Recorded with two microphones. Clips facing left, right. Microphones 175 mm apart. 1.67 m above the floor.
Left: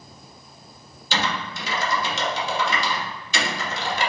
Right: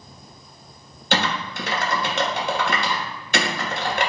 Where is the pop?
No pop in this recording.